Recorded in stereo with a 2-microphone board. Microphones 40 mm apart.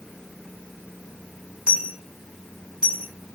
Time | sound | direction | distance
1.7 | a dropped coin | 25° right (ahead or behind) | 4 m